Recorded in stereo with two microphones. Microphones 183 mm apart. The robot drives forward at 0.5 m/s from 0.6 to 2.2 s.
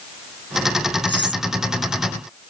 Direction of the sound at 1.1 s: 80° right.